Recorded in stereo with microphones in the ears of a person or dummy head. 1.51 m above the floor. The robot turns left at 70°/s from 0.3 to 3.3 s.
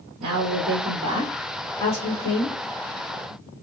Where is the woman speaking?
100° right, 1.1 m; by 2.5 s 100° left, 1.1 m.